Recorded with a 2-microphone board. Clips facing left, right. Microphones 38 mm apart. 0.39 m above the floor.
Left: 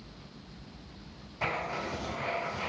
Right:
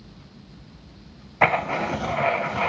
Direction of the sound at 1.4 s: 80° right.